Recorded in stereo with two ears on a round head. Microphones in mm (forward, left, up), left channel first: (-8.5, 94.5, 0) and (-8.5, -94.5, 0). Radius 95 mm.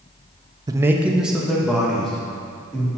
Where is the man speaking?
20° right (ahead or behind), 0.5 m; by 2.9 s 5° left (ahead or behind), 3 m.